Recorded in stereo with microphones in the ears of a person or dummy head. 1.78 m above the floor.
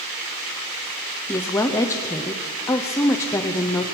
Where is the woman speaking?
10° left (ahead or behind), 0.6 m.